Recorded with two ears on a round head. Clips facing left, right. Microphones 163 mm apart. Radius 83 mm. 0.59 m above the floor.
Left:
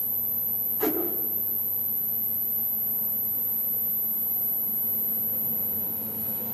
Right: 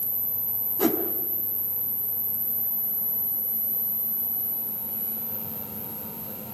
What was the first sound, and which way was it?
A whoosh, 50° right (ahead or behind).